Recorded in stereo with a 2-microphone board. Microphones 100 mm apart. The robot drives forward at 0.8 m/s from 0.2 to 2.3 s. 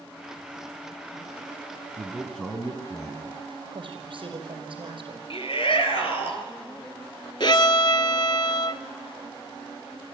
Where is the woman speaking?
55° right (ahead or behind), 5 m.